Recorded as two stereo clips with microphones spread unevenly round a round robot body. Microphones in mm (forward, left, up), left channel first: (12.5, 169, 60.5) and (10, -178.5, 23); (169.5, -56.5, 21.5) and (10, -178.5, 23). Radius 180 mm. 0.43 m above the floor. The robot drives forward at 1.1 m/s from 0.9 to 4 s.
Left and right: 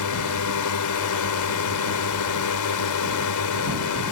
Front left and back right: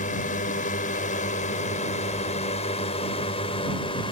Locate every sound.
0.0 s a drone: 80° left; by 4.1 s 100° left